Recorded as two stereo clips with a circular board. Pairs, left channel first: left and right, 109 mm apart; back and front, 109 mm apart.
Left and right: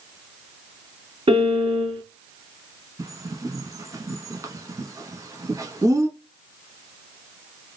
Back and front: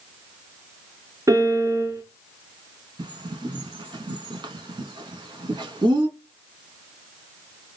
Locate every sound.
1.3 s a piano: 60° right, 0.6 m
3.0 s a bird: 35° right, 0.7 m